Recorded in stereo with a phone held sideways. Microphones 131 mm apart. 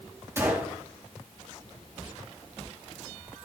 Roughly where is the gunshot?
Centre.